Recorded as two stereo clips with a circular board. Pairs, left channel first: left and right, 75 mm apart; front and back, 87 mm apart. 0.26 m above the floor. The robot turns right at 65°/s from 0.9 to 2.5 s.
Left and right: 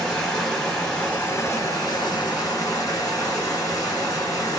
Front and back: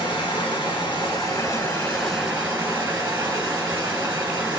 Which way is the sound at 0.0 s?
10° left.